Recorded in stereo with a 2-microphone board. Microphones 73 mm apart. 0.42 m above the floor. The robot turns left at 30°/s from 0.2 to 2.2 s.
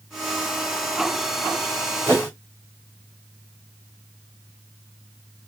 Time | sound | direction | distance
2.1 | a whoosh | 35° right (ahead or behind) | 3.5 m